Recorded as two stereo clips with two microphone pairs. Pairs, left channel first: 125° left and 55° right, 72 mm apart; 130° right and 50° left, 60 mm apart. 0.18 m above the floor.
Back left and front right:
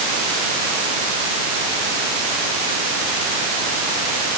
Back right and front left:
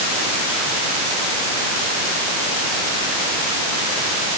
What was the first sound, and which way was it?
Only background noise.